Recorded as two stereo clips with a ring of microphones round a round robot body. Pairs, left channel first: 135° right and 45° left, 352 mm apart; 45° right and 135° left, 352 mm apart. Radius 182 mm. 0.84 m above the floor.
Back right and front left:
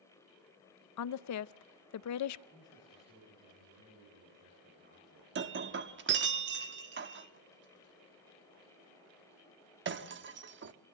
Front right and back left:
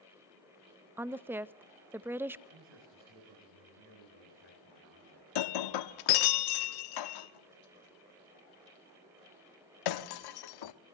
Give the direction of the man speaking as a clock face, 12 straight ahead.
8 o'clock.